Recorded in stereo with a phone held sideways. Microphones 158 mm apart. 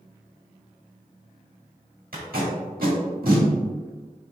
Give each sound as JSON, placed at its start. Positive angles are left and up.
{"t": 2.1, "sound": "tape being pulled", "side_deg": -80, "distance_m": 1.6}